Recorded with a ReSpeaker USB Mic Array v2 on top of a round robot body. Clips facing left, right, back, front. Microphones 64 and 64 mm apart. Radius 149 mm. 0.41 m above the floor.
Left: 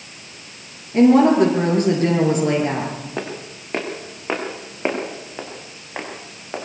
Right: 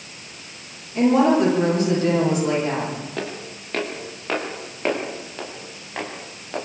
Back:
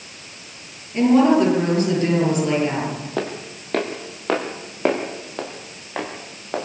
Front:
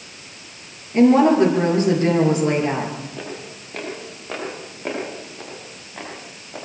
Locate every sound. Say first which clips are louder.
0.9 s a woman speaking: left 4 dB, front 2 dB; 55° left, 9 m
3.2 s footsteps: left 1 dB, back 6 dB; 160° left, 4 m